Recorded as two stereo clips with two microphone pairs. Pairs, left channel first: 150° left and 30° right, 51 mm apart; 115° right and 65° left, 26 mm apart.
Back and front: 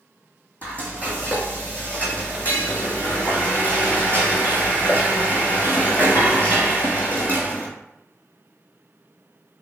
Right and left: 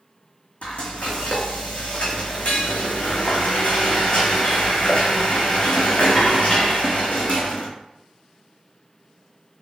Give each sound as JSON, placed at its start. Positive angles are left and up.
{"t": 0.6, "sound": "frying", "azimuth_deg": -150, "distance_m": 1.7}